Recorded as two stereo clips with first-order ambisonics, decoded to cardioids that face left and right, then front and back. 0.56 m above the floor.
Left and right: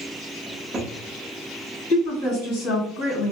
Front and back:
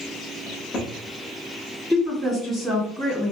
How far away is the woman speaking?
About 1.9 m.